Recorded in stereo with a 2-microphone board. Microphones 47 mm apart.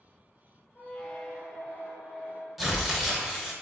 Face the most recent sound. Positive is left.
turn(degrees=-5)  # may be behind; listen again after turning